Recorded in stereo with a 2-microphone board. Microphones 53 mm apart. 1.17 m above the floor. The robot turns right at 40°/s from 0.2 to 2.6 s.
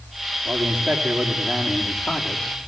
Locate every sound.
0.5 s a man speaking: 30° right, 3 m; by 2.7 s 55° left, 3 m